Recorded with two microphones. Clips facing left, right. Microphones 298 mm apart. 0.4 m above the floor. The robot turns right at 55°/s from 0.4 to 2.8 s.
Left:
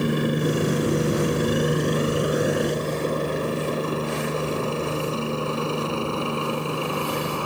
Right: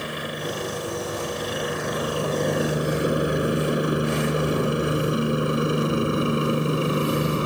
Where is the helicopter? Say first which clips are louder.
Left 9 dB; 55° left (ahead or behind); by 7.5 s 20° right (ahead or behind).